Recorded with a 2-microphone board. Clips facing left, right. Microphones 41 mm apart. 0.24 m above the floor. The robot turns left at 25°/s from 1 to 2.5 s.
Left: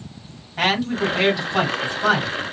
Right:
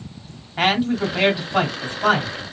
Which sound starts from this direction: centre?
A man speaking, at 0.6 s.